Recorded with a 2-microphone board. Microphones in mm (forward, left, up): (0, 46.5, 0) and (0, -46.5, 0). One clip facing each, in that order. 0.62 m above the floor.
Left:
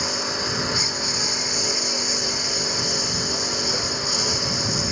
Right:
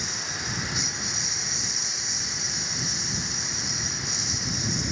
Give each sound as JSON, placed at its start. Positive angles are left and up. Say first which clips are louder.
{"t": 0.0, "sound": "a lawn mower", "louder": "left 8 dB", "side_deg": 65}